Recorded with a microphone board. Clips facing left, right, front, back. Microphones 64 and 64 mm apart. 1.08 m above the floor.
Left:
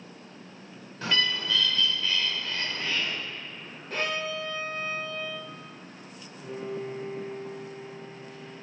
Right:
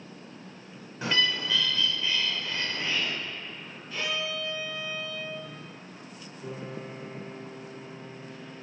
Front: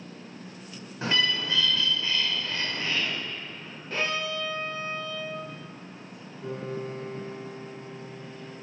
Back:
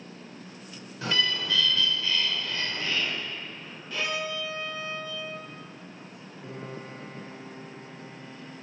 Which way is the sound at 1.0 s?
30° right.